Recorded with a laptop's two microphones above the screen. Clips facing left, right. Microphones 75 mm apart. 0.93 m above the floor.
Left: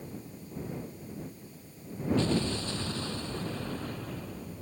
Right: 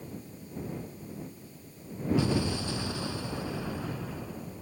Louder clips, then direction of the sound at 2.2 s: Even; 10° right (ahead or behind).